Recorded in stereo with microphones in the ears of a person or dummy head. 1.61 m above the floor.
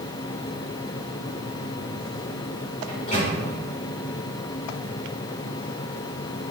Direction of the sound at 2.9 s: 20° left (ahead or behind).